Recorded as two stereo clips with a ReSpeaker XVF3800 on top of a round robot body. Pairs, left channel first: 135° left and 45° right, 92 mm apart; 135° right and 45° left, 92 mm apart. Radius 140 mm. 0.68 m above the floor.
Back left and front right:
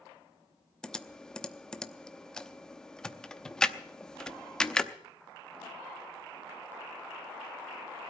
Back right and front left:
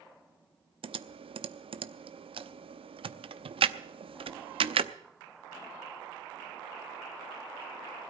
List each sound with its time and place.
0.8 s typing on a keyboard: 55° left, 0.8 m